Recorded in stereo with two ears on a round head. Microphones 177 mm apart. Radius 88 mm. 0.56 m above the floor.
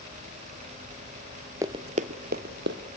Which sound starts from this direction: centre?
Running footsteps, at 1.6 s.